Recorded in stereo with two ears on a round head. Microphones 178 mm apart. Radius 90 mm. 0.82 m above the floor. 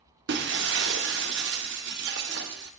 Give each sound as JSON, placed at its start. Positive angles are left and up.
{"t": 0.3, "sound": "breaking glass", "side_deg": -55, "distance_m": 0.8}